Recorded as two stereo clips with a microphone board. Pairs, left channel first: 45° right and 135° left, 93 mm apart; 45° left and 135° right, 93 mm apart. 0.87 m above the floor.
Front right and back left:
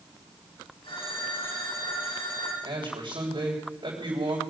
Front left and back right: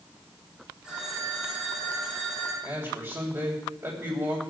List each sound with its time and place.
0.8 s a phone ringing: 50° right, 6 m
2.6 s a man speaking: 165° left, 3.5 m